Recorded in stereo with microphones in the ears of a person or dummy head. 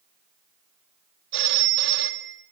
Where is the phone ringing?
60° right (ahead or behind), 2.5 m.